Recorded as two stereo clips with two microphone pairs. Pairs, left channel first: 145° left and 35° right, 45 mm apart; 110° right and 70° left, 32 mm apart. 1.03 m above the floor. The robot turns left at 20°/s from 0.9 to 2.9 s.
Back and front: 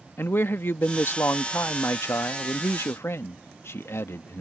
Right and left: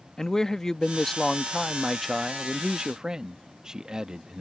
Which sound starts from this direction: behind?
A man speaking, at 0.2 s.